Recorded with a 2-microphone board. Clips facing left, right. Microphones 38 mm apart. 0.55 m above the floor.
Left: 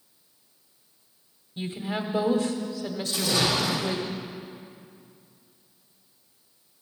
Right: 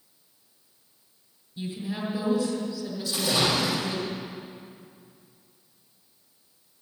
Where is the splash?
15° right (ahead or behind), 5.5 m.